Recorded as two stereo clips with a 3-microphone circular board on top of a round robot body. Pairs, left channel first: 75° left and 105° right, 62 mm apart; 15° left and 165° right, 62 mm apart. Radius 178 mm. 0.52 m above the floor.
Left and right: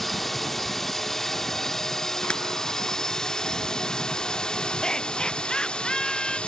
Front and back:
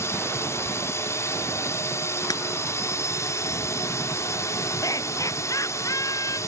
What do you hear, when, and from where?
0.0 s a drone: 10° right; by 6.5 s 5° left
2.3 s breaking glass: straight ahead
4.8 s laughter: straight ahead